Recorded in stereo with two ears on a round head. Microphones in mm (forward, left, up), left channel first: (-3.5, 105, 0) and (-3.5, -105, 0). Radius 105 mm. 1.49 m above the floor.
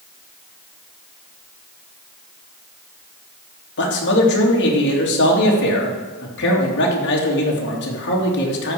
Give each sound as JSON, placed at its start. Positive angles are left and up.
{"t": 3.8, "sound": "a man speaking", "side_deg": 50, "distance_m": 3.0}